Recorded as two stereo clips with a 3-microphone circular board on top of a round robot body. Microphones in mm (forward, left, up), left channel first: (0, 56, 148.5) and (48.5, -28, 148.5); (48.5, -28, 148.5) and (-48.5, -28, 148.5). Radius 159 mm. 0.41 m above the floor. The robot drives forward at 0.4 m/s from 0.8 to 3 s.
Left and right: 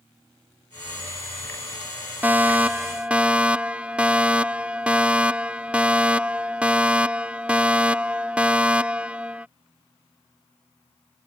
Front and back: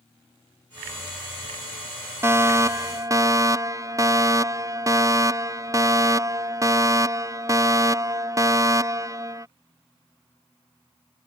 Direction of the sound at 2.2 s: 130° right.